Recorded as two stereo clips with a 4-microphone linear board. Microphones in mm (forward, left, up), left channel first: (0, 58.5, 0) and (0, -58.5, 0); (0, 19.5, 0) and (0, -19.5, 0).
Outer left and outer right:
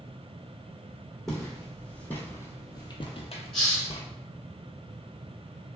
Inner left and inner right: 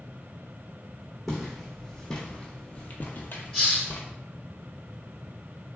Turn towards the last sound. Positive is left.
turn(degrees=5)  # may be behind; listen again after turning